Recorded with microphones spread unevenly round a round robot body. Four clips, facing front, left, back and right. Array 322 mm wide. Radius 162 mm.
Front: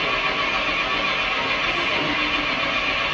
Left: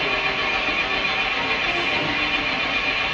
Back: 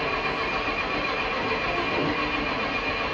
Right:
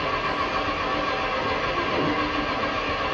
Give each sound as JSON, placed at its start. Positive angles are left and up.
{"t": 0.0, "sound": "an engine running", "azimuth_deg": -90, "distance_m": 3.5}